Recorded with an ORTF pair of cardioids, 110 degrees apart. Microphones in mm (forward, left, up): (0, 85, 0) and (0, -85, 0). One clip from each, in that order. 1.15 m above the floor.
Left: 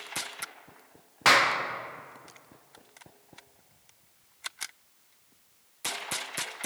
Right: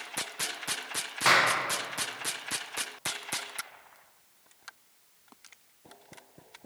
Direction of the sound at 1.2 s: 15° left.